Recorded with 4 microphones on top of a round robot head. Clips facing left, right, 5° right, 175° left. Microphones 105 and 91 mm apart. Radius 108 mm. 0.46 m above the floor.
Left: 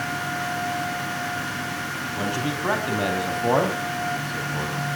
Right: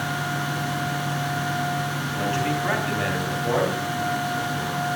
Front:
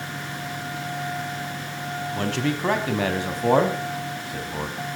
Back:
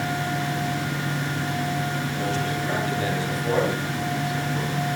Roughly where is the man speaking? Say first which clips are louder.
Right 2 dB, front 4 dB; ahead.